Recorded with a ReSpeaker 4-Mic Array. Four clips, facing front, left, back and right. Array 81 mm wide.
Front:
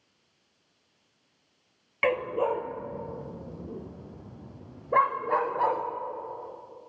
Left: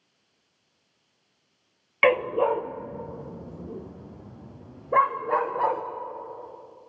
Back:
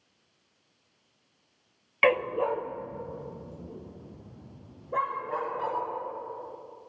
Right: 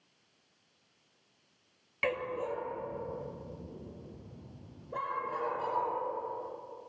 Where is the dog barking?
105° left, 0.9 m; by 5.8 s 60° left, 5.5 m.